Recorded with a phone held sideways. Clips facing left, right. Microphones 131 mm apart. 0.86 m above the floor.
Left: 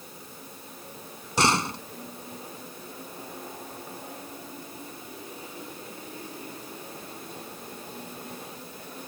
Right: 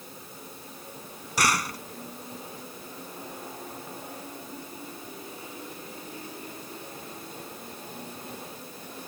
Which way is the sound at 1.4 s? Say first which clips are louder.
Left 3 dB; 25° left (ahead or behind).